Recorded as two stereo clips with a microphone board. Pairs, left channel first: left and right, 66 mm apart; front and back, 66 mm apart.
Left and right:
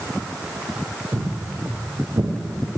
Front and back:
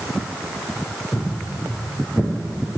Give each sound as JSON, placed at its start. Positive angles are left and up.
{"t": 1.1, "sound": "footsteps", "azimuth_deg": -55, "distance_m": 4.0}